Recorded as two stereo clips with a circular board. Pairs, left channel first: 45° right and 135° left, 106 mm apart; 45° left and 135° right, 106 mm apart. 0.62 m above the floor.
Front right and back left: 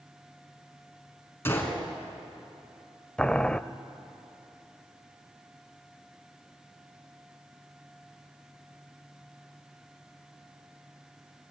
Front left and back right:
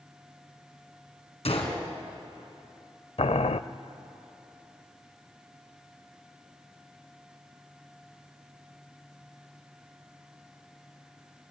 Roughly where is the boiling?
Ahead left.